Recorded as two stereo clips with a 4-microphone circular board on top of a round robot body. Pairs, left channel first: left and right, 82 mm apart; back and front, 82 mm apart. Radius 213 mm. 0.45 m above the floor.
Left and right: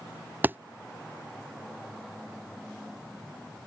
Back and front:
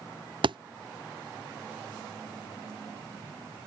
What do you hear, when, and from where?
0.4 s a thud: 20° right